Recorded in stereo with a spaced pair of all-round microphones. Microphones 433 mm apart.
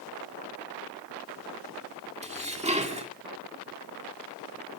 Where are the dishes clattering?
15° right (ahead or behind), 2 m.